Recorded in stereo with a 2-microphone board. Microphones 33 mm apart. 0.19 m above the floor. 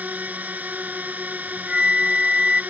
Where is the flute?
30° right (ahead or behind).